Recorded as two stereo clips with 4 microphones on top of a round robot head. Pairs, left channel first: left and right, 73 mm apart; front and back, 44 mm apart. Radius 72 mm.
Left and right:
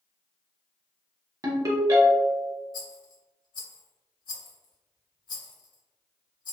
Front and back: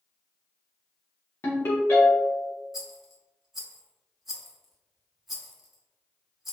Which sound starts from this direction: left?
A rattle, at 2.7 s.